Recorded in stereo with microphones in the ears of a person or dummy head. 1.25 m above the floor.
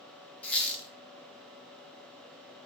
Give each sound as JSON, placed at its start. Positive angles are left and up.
{"t": 0.4, "sound": "a squeak", "side_deg": 5, "distance_m": 0.8}